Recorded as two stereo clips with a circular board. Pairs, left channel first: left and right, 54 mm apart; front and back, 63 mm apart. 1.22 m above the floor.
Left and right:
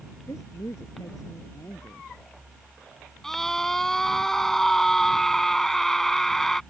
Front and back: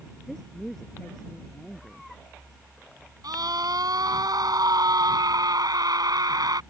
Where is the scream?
175° left.